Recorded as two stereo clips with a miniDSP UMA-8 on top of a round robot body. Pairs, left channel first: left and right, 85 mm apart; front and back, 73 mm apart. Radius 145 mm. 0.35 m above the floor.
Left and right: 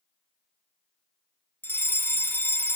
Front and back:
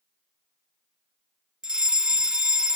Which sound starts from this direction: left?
A fire alarm, at 1.6 s.